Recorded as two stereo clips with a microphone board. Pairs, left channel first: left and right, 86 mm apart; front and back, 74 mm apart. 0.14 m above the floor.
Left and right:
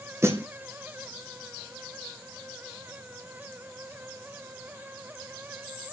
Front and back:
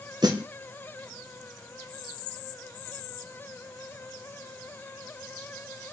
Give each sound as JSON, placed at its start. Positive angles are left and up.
{"t": 0.2, "sound": "a snare drum", "azimuth_deg": -150, "distance_m": 2.0}